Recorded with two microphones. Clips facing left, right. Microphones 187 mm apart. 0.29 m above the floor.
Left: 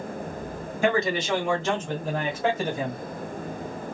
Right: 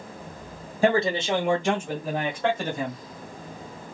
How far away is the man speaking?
About 1.8 m.